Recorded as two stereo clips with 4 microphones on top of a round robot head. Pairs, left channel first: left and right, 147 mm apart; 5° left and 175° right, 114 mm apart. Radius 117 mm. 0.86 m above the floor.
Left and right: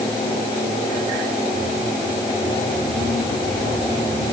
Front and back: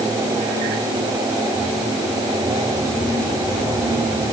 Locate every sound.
Only background noise.